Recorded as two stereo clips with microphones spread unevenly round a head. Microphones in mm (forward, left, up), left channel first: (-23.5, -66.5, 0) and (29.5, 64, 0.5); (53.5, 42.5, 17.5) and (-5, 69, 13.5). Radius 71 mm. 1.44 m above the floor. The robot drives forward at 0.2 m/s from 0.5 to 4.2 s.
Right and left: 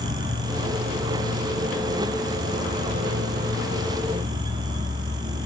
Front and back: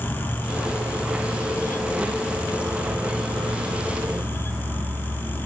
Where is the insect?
45° left, 0.8 m; by 5.5 s 110° left, 0.7 m.